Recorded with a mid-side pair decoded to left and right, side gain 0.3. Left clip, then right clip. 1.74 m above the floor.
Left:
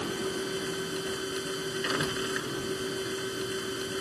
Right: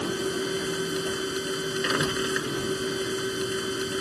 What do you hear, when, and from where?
0.0 s a machine running: 50° right